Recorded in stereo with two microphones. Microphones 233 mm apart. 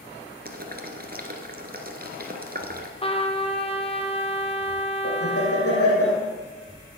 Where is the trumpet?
25° left (ahead or behind), 1.1 m.